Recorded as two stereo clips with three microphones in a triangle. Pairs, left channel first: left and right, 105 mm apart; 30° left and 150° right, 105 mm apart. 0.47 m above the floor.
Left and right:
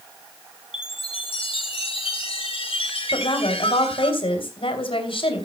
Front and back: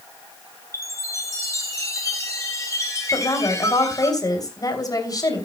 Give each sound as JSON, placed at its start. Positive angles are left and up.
{"t": 0.7, "sound": "a chime", "azimuth_deg": 85, "distance_m": 2.5}
{"t": 3.1, "sound": "a woman speaking", "azimuth_deg": 75, "distance_m": 3.0}